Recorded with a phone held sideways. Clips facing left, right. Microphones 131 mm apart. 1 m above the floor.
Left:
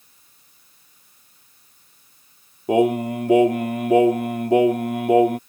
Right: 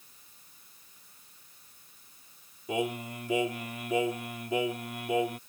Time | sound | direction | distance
2.7 | singing | 65° left (ahead or behind) | ?